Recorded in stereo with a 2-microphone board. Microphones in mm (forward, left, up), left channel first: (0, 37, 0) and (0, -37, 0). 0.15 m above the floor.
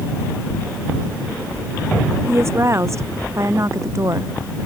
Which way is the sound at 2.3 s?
40° right (ahead or behind).